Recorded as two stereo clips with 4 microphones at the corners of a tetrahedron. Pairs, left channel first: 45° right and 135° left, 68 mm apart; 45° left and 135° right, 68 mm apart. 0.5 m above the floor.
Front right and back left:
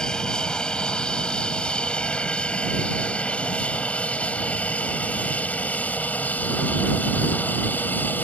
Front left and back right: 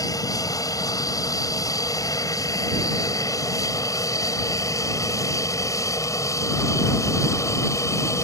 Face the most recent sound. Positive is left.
turn(degrees=15)